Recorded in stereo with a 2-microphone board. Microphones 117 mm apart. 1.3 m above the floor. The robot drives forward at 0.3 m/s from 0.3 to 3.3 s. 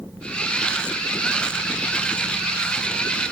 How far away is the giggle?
I don't hear a giggle.